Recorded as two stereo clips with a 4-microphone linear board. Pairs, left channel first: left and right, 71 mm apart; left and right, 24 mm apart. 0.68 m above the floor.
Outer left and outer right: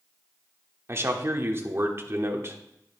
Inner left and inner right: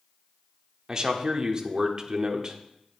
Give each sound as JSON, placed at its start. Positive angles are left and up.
{"t": 0.9, "sound": "a man speaking", "side_deg": -35, "distance_m": 1.3}